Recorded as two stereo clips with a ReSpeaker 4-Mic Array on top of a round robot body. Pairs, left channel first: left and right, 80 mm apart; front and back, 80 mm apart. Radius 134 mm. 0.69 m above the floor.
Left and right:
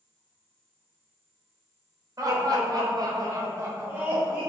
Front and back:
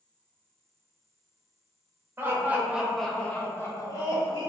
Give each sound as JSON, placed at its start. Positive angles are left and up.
{"t": 2.2, "sound": "laughter", "azimuth_deg": -125, "distance_m": 1.0}